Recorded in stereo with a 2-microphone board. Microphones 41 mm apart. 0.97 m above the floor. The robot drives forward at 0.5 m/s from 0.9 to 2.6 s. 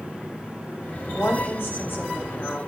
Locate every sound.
1.1 s a woman speaking: 60° left (ahead or behind), 6 m; by 2.6 s 55° left (ahead or behind), 6.5 m